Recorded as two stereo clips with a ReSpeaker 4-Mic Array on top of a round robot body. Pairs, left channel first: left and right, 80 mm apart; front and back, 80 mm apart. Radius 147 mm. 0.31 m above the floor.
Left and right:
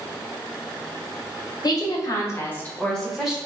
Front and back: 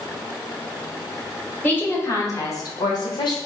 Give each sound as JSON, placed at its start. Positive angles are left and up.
{"t": 1.6, "sound": "a woman speaking", "azimuth_deg": 65, "distance_m": 2.0}